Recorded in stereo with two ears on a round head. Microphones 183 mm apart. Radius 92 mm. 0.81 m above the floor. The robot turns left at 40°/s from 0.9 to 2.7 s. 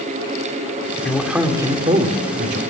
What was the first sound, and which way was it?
A man speaking, 5° left.